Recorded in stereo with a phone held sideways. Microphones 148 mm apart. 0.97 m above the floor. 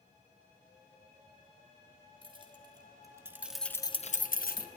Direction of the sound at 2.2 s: 35° right (ahead or behind).